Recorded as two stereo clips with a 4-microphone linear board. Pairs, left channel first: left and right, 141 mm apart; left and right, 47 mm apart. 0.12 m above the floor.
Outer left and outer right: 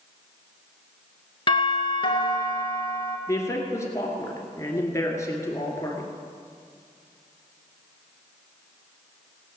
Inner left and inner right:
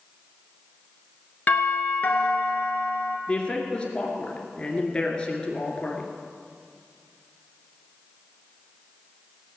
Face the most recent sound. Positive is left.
turn(degrees=20)  # may be behind; listen again after turning